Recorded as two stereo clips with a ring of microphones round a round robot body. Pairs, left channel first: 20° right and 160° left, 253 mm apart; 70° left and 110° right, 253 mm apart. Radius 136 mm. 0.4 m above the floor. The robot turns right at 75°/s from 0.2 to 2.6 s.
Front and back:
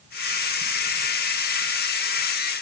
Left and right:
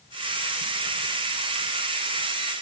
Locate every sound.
Only background noise.